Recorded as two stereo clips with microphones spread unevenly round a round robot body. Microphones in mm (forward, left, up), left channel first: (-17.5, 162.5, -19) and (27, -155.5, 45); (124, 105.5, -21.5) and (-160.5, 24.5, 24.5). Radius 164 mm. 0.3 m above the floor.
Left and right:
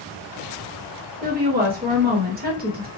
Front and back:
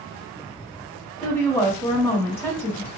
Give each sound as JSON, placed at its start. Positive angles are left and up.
{"t": 1.2, "sound": "a woman speaking", "azimuth_deg": -30, "distance_m": 1.0}